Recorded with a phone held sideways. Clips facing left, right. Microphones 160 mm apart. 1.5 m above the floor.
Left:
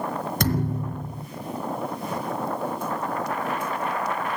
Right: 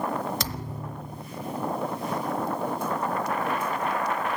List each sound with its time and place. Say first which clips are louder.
0.4 s a thud: left 9 dB; 55° left (ahead or behind), 3 m